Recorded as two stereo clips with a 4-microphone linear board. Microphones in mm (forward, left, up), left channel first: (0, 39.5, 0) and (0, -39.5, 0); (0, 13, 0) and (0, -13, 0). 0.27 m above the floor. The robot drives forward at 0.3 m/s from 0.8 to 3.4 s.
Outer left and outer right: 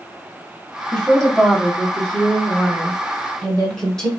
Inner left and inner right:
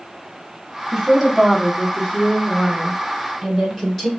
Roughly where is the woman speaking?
Centre.